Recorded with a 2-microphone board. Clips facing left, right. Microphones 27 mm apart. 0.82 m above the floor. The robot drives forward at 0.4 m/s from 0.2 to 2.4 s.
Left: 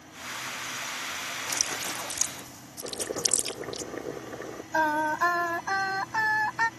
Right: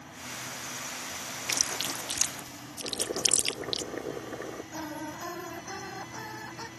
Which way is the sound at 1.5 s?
55° right (ahead or behind).